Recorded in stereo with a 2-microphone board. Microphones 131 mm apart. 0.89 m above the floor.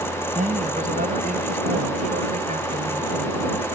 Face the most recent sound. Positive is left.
turn(degrees=-80)